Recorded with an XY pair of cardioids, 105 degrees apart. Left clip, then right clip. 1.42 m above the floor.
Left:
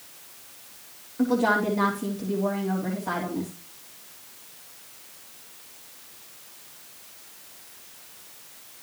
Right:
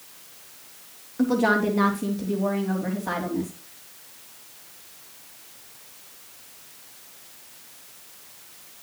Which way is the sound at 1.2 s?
25° right.